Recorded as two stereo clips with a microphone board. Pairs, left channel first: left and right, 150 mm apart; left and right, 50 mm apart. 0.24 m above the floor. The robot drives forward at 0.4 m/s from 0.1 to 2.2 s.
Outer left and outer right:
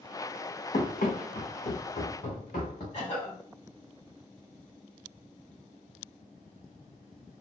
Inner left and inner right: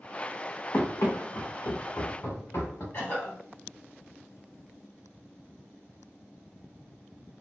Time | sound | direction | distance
0.7 | running footsteps | 55° left (ahead or behind) | 0.9 m
2.9 | a cough | 50° left (ahead or behind) | 2.0 m